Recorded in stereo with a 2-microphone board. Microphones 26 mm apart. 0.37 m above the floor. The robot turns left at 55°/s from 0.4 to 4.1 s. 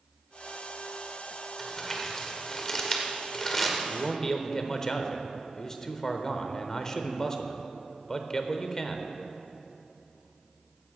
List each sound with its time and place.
1.6 s crumpling: 10° left (ahead or behind), 1.3 m
3.9 s a man speaking: 25° left (ahead or behind), 0.8 m; by 9.1 s 20° left (ahead or behind), 0.8 m